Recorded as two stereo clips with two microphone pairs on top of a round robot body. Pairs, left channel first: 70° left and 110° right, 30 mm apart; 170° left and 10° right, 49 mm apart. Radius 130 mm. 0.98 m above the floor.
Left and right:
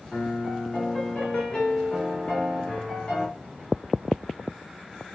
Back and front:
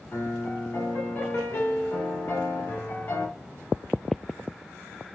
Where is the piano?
125° left, 1.0 m.